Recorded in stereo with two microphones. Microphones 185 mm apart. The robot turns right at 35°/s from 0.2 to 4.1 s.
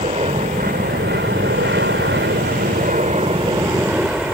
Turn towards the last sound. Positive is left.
turn(degrees=-5)